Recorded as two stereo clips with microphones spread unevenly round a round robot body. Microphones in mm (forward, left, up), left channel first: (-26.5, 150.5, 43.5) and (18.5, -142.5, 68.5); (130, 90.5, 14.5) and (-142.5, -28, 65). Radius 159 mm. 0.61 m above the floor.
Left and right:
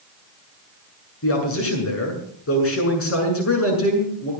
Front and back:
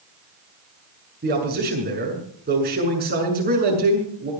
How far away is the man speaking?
About 7.5 m.